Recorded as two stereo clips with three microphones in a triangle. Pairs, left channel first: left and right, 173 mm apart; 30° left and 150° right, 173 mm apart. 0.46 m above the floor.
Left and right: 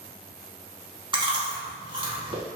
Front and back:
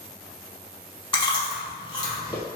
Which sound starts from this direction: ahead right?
Chewing, at 1.1 s.